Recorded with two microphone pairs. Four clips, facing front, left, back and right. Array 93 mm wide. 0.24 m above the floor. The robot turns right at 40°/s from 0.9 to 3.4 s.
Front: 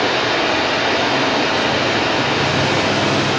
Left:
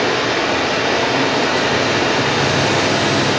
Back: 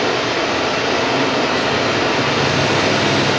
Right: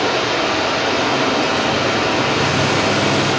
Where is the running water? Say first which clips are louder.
Left 1 dB, even; 45° left, 1.2 m; by 3.4 s 145° left, 1.2 m.